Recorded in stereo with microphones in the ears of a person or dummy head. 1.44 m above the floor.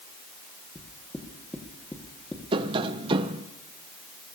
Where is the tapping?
25° right (ahead or behind), 0.5 m.